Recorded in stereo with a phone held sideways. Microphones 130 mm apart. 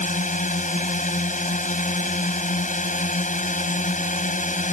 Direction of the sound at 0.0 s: 80° left.